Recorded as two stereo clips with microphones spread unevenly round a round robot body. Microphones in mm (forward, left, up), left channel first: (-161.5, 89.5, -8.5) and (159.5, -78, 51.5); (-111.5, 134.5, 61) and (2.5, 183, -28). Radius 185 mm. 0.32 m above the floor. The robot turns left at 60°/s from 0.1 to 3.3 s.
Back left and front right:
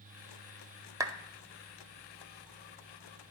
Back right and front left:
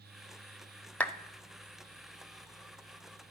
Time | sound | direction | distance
1.0 | a clap | 65° left | 0.8 m